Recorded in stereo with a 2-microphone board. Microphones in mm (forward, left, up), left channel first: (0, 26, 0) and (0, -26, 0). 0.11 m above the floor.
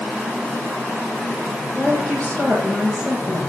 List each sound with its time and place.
1.8 s a woman speaking: 20° left (ahead or behind), 10 m